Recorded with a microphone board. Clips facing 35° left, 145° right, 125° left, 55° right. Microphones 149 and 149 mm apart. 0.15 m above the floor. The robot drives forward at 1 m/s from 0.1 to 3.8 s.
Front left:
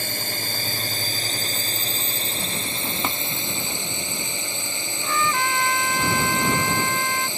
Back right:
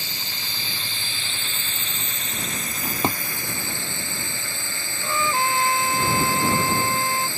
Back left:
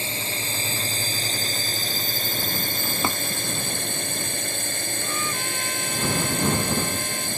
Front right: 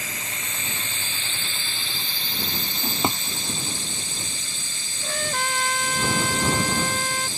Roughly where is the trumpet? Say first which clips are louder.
Back right 1 dB, front right 6 dB; right.